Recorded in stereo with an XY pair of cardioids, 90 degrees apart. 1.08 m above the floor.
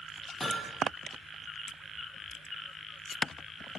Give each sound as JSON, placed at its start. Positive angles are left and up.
{"t": 0.4, "sound": "hammering", "azimuth_deg": 10, "distance_m": 7.5}